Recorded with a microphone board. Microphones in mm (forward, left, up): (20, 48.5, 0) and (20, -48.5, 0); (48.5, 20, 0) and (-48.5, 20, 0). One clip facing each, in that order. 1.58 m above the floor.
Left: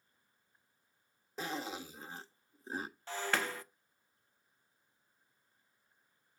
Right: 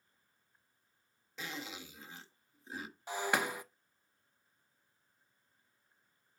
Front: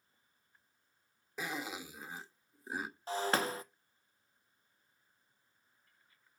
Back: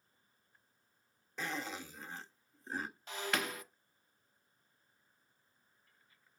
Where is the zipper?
75° left, 1.1 m.